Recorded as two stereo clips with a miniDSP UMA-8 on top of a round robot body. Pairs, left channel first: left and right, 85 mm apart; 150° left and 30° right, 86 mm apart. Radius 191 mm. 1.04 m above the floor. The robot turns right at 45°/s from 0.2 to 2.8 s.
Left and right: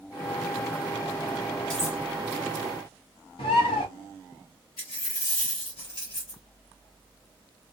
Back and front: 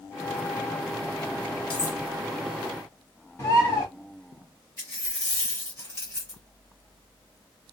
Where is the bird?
85° left, 0.7 m.